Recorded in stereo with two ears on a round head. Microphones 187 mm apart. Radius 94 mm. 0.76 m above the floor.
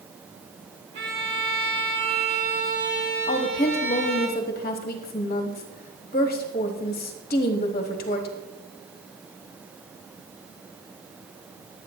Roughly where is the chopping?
I don't hear chopping.